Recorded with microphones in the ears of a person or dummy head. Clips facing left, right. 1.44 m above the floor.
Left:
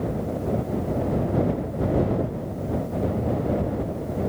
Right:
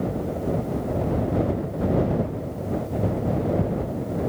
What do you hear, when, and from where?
Only background noise.